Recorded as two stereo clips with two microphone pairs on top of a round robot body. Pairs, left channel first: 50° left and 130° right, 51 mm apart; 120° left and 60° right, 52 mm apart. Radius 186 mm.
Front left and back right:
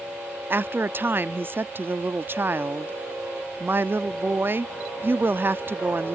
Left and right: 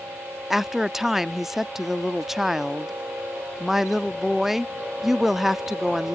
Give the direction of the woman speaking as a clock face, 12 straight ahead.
5 o'clock.